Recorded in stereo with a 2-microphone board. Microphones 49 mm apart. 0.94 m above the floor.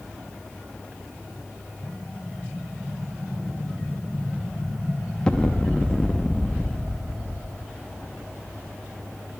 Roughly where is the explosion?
Centre.